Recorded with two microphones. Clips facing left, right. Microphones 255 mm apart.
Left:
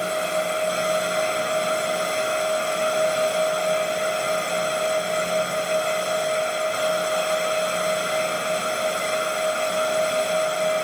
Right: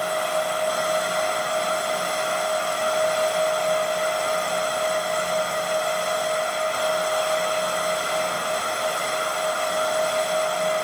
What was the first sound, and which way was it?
Only background noise.